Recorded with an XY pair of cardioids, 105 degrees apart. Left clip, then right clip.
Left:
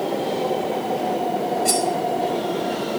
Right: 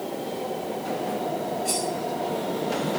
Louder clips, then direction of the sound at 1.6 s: Left 7 dB; 50° left.